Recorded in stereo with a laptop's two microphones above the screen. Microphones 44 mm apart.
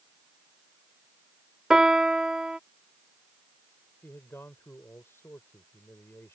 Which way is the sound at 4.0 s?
65° left (ahead or behind).